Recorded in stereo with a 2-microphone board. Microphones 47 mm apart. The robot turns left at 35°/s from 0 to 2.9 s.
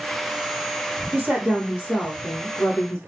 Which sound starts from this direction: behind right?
A woman speaking, at 1.1 s.